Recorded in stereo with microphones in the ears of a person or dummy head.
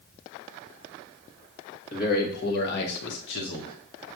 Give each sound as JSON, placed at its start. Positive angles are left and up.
{"t": 1.9, "sound": "a man speaking", "side_deg": 55, "distance_m": 2.5}